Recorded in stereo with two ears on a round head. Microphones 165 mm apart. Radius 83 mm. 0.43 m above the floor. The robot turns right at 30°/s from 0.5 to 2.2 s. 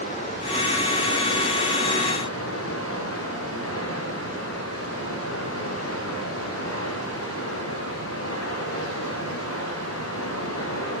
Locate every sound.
0.0 s running water: 35° left, 7 m; by 11.0 s 90° left, 7 m